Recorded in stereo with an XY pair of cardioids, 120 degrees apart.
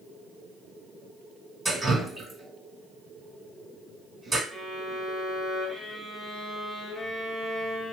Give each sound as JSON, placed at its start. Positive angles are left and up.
{"t": 1.6, "sound": "dripping", "azimuth_deg": -15, "distance_m": 1.6}
{"t": 4.5, "sound": "a violin", "azimuth_deg": 10, "distance_m": 1.1}